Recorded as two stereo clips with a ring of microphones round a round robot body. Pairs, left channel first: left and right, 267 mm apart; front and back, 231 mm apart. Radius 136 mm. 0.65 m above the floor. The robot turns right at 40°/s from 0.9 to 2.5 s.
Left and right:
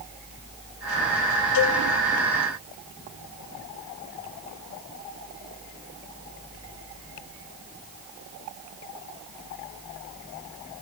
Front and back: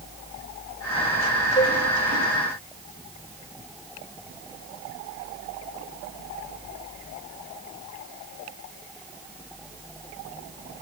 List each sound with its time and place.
1.6 s a cowbell: 75° left, 2.5 m; by 1.8 s 80° left, 2.5 m